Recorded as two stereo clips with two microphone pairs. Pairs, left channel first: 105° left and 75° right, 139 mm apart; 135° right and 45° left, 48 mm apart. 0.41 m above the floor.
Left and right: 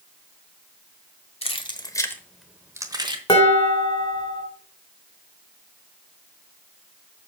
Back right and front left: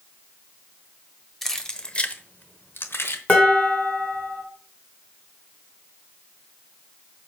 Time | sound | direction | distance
1.4 | keys jangling | 140° left | 1.2 m
3.3 | dishes clattering | 165° left | 3 m